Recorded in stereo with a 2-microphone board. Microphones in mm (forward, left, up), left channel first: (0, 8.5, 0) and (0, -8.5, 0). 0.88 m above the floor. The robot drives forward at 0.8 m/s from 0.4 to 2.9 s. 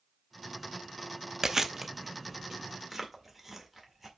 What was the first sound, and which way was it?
Chewing, 30° right (ahead or behind).